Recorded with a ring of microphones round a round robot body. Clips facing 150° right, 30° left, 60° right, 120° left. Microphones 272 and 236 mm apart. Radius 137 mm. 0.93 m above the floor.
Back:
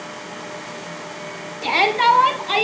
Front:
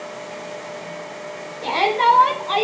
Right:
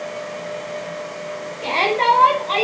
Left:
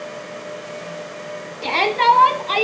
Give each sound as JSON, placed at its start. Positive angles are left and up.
{"t": 1.6, "sound": "a shout", "azimuth_deg": 165, "distance_m": 3.5}